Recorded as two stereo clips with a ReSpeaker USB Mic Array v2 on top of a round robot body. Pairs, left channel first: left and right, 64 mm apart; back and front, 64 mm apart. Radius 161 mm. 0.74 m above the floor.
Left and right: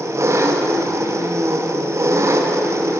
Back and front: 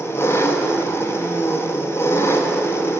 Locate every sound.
0.0 s an engine running: 135° right, 0.8 m